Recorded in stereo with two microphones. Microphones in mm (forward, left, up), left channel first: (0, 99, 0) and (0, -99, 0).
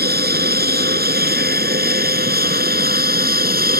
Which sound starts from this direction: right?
An aircraft, at 0.0 s.